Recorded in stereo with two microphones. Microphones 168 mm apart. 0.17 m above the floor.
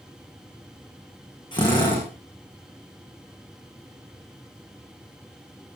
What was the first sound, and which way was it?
A drill, 30° left (ahead or behind).